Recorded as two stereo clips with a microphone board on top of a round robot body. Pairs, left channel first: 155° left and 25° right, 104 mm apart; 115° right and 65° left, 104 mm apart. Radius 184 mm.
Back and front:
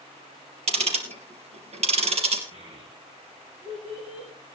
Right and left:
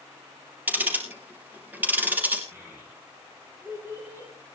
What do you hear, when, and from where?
0.7 s ticking: 5° right, 3.5 m
2.5 s a child speaking: 5° right, 5 m